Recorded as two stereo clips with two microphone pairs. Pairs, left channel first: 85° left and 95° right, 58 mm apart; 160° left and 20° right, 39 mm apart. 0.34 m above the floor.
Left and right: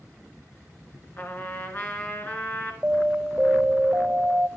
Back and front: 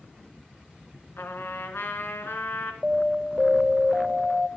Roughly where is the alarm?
Right.